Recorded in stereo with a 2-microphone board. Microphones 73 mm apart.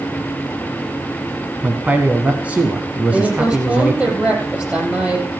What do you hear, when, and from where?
1.6 s a man speaking: 20° right (ahead or behind), 1.1 m
3.1 s a woman speaking: 20° right (ahead or behind), 5 m